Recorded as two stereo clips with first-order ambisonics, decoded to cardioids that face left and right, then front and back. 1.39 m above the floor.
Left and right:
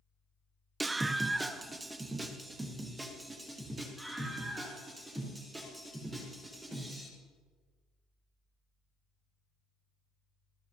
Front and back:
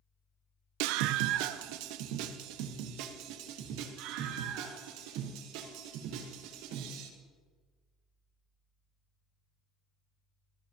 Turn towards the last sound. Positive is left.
turn(degrees=-170)